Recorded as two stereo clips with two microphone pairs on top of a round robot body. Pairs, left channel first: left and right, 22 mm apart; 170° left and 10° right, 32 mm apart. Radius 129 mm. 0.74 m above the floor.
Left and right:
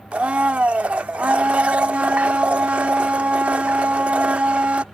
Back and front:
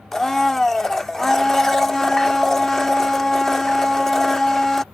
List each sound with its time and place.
0.1 s a blender: 110° right